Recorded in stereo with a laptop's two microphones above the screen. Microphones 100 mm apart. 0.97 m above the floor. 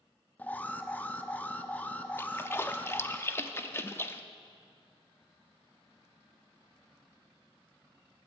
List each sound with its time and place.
0.4 s an alarm: 15° left (ahead or behind), 0.5 m
2.2 s a splash: 25° left (ahead or behind), 0.5 m